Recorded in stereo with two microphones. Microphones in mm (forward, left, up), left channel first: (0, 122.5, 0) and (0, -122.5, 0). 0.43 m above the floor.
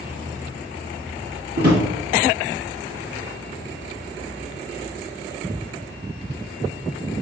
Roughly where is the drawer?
Right.